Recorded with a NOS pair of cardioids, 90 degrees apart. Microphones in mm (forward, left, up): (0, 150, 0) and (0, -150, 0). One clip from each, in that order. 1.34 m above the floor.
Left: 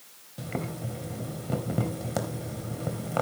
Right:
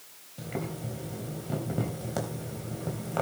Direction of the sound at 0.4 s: 30° left.